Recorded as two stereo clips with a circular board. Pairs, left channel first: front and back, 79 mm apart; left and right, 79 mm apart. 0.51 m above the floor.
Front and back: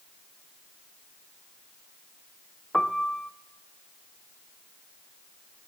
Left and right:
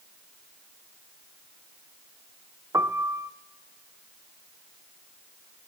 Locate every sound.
2.7 s a piano: 80° right, 0.8 m